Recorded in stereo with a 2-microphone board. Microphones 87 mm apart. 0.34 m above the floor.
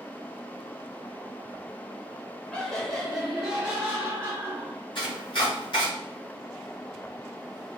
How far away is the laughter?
About 0.9 m.